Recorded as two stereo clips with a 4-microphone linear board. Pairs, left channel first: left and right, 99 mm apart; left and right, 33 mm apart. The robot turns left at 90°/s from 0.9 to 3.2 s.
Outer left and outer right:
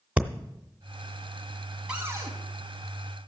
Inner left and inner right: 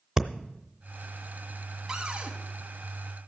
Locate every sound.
0.2 s breathing: 15° right (ahead or behind), 0.7 m
1.9 s a cupboard door: 10° right, 2.5 m; by 2.3 s 50° right, 2.5 m